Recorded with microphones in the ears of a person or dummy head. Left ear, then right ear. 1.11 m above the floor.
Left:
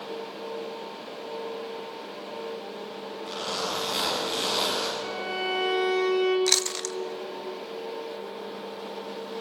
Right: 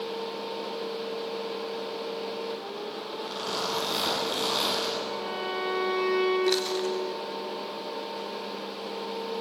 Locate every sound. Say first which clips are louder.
3.2 s a zipper: left 1 dB; 5° right (ahead or behind), 8.5 m
5.0 s a violin: left 2 dB; 55° left (ahead or behind), 5 m
6.5 s chewing: left 1 dB; 70° left (ahead or behind), 0.7 m